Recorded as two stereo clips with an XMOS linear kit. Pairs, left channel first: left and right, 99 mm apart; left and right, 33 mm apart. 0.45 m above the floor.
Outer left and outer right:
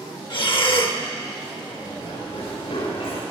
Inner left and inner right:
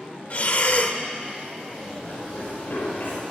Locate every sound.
0.3 s breathing: 55° left (ahead or behind), 1.0 m
1.7 s running footsteps: 75° left (ahead or behind), 7.5 m